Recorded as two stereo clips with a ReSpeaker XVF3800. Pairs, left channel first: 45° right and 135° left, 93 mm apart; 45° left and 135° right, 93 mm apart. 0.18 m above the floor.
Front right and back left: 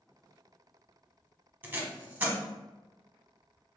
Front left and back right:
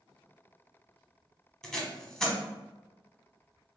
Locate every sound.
1.6 s tape being pulled: 115° left, 0.8 m